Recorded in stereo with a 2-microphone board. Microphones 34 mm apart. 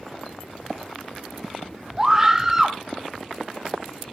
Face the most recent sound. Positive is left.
turn(degrees=-15)  # may be behind; listen again after turning